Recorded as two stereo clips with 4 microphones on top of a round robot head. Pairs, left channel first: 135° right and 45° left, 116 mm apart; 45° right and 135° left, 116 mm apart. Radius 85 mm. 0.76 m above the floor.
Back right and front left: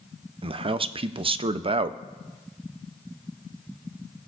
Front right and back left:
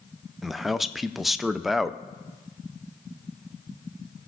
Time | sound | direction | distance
0.4 | a man speaking | 45° left | 0.5 m